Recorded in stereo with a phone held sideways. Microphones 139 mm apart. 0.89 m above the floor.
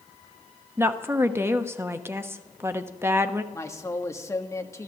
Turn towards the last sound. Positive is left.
turn(degrees=20)  # may be behind; listen again after turning